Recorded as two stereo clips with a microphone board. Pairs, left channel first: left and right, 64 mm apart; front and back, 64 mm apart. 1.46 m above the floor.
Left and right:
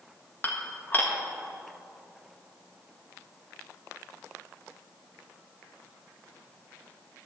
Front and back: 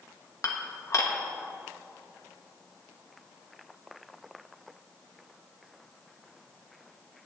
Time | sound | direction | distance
0.4 | dishes clattering | 35° left | 1.3 m